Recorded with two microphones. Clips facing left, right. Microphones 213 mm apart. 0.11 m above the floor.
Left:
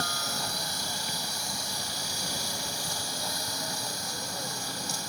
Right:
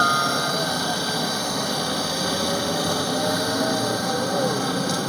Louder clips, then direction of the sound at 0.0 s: Right 12 dB; 70° right (ahead or behind).